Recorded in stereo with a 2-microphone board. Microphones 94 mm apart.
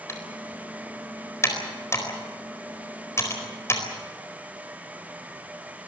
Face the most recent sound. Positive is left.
turn(degrees=30)  # may be behind; listen again after turning